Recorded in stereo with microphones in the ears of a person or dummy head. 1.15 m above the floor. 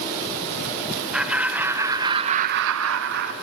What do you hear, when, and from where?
1.1 s laughter: centre (ahead or behind), 1.5 m; by 3.3 s 55° right (ahead or behind), 0.8 m